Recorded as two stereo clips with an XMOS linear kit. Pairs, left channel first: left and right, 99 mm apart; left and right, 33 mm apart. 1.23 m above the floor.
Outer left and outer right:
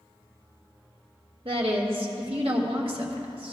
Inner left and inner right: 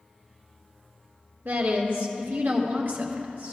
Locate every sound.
1.4 s a woman speaking: 65° right (ahead or behind), 1.5 m